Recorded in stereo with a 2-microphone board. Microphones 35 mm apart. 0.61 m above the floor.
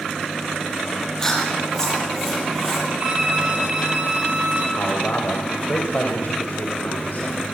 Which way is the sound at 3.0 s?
40° right (ahead or behind).